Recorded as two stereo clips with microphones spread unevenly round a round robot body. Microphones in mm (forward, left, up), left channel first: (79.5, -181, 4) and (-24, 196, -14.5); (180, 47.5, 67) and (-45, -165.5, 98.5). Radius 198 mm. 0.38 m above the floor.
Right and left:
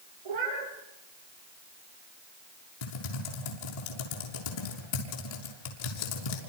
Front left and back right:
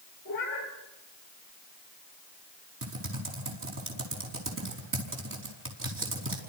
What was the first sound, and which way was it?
A cat meowing, 110° left.